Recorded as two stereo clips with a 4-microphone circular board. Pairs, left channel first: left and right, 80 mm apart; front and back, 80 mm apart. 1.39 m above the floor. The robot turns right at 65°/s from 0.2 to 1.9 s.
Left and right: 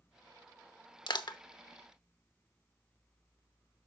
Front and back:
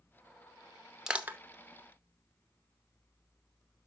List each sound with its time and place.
1.1 s crushing: 100° left, 0.9 m; by 1.4 s 120° left, 0.9 m